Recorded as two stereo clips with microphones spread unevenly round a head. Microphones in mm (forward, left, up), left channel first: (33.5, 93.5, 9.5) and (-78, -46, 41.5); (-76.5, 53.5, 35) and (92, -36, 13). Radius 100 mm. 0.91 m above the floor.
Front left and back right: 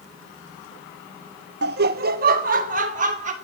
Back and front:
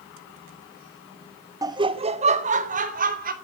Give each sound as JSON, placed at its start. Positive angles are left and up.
{"t": 1.6, "sound": "laughter", "azimuth_deg": -95, "distance_m": 1.0}